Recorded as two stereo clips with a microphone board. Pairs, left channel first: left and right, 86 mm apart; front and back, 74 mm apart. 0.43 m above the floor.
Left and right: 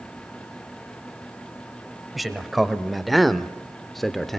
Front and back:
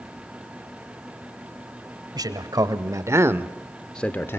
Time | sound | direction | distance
2.1 | a man speaking | straight behind | 1.7 m